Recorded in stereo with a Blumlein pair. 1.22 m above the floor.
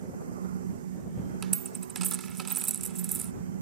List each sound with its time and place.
0.0 s a fan: 65° right
1.4 s a dropped coin: 25° right